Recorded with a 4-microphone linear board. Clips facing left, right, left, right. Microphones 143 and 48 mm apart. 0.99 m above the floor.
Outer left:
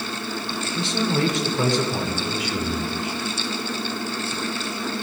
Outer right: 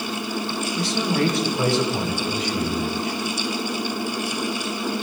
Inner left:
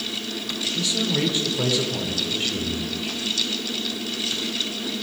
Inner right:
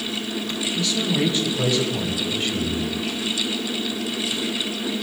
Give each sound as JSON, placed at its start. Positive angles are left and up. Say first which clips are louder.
{"t": 0.8, "sound": "a man speaking", "louder": "even, inner right 1 dB", "side_deg": 25, "distance_m": 3.0}